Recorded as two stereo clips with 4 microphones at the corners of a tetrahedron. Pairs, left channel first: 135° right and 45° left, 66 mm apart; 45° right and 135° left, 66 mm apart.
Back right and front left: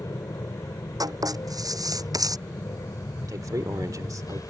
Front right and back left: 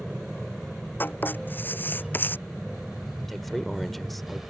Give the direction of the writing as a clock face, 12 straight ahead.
11 o'clock.